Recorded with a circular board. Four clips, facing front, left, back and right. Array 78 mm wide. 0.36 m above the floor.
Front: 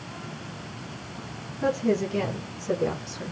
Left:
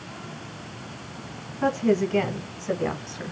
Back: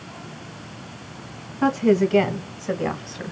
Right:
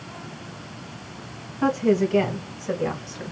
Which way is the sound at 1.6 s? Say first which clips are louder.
Right 2 dB, back 6 dB; 170° right.